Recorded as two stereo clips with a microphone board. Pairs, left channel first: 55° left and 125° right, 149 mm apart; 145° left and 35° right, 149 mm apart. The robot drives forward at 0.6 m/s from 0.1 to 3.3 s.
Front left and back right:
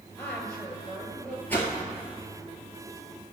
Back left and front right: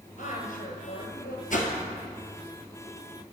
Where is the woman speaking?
135° left, 2.0 m; by 1.4 s 150° left, 2.5 m.